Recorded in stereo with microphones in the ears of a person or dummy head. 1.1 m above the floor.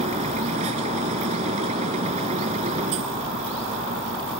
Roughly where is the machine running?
Right.